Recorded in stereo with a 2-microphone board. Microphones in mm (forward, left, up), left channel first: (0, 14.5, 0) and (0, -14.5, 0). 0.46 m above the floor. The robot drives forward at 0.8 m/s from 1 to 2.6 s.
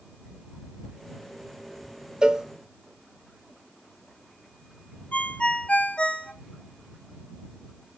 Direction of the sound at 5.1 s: 55° left (ahead or behind).